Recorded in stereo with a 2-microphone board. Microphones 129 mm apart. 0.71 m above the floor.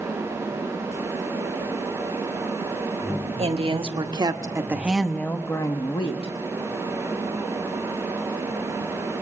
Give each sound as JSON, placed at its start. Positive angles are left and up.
{"t": 3.4, "sound": "a woman speaking", "side_deg": -50, "distance_m": 1.5}